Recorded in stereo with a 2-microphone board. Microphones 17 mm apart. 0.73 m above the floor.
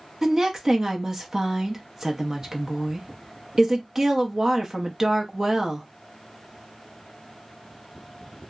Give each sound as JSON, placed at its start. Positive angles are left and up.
{"t": 0.2, "sound": "a woman speaking", "side_deg": -25, "distance_m": 0.6}